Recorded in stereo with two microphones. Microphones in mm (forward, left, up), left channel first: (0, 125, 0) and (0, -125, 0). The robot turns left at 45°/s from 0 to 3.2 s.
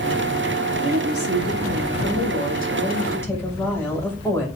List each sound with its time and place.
0.8 s a woman speaking: 115° left, 6 m; by 4.5 s 10° left, 6 m